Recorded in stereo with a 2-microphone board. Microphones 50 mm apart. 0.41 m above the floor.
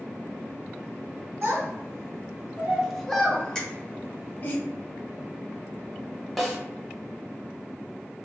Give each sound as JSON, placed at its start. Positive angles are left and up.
{"t": 1.4, "sound": "a child speaking", "side_deg": -40, "distance_m": 1.0}
{"t": 3.5, "sound": "a finger snap", "side_deg": 20, "distance_m": 0.9}
{"t": 6.4, "sound": "a snare drum", "side_deg": 0, "distance_m": 0.7}